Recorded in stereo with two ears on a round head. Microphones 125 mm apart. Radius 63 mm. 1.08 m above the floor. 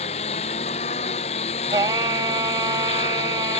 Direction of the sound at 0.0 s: 45° left (ahead or behind).